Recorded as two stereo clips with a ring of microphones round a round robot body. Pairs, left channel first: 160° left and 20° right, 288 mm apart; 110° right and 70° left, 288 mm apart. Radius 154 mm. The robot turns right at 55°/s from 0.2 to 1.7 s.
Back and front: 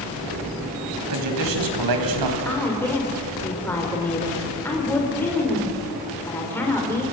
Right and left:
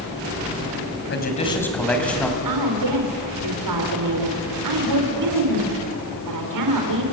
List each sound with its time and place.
1.1 s a man speaking: 60° right, 5 m; by 2.4 s 25° right, 5 m
2.5 s a woman speaking: 75° left, 3.5 m